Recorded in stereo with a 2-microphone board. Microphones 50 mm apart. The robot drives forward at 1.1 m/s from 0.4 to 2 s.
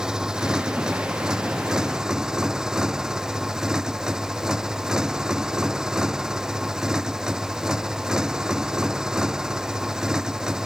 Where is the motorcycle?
15° right (ahead or behind).